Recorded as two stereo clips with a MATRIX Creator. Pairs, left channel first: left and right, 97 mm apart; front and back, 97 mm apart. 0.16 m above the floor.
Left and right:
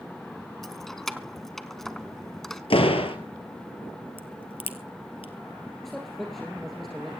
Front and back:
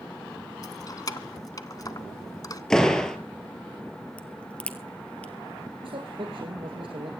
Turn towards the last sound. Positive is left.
turn(degrees=175)